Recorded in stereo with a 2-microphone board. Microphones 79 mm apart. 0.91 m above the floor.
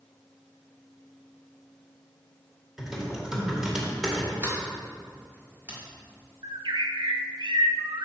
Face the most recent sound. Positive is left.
turn(degrees=-85)